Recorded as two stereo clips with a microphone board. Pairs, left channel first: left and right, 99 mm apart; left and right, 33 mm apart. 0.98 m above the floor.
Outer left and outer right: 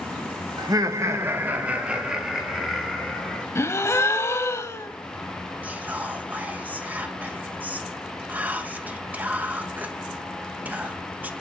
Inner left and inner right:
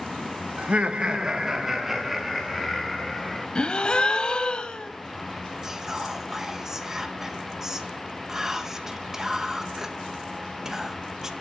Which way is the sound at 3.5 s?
30° left (ahead or behind).